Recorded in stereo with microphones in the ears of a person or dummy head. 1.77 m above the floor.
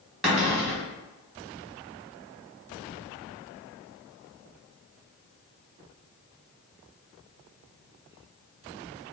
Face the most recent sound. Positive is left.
turn(degrees=-5)  # may be behind; listen again after turning